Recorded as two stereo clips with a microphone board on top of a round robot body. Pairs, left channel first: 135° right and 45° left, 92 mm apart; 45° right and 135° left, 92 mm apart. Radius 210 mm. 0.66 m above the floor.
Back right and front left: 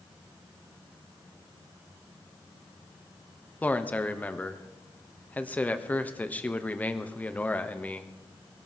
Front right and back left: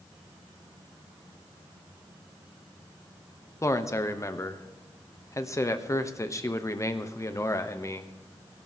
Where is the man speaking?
75° right, 1.3 m.